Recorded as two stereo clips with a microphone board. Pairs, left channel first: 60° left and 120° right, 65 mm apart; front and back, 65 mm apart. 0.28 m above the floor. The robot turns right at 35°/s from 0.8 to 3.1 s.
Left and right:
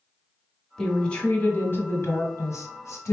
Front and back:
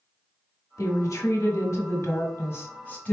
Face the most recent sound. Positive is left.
turn(degrees=65)